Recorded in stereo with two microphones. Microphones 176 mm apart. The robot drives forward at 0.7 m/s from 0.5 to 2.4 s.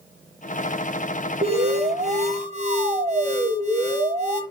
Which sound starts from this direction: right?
An alarm, at 1.4 s.